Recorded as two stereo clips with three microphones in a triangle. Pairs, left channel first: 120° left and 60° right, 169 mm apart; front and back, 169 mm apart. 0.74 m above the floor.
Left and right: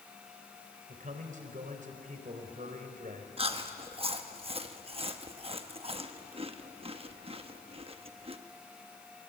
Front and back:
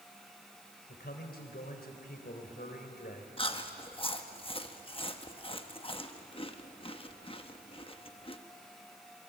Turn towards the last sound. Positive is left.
turn(degrees=-35)